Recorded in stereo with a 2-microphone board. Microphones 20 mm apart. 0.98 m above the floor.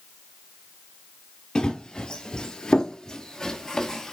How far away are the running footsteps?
About 1.4 m.